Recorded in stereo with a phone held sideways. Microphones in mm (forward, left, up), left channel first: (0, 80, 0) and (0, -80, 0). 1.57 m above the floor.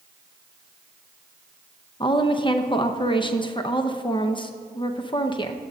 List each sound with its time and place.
2.0 s a woman speaking: 30° left (ahead or behind), 0.7 m